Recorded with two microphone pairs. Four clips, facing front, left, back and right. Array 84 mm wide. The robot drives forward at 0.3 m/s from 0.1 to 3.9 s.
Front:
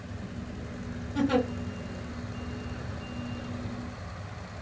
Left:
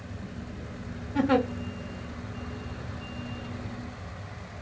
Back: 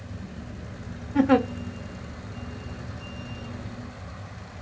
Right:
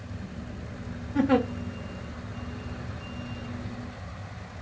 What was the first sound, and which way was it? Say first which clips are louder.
A giggle: right 1 dB, back 6 dB; 150° left.